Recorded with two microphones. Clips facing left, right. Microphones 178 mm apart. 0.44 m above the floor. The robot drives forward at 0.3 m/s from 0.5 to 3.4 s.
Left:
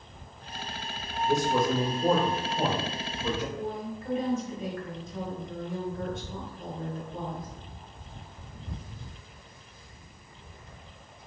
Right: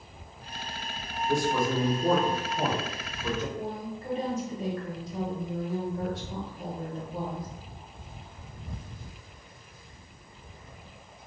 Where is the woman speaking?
35° right (ahead or behind), 1.5 m.